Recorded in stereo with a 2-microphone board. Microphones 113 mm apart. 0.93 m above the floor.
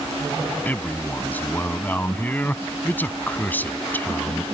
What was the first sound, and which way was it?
A man speaking, 15° left (ahead or behind).